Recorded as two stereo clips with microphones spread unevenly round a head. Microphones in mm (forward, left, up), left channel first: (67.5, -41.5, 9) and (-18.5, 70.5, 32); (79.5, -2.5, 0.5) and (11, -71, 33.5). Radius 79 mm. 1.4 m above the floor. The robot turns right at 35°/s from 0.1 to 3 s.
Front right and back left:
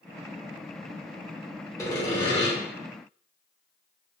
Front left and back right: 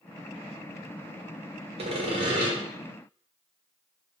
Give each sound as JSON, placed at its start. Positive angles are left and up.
{"t": 1.8, "sound": "sawing", "azimuth_deg": -115, "distance_m": 0.8}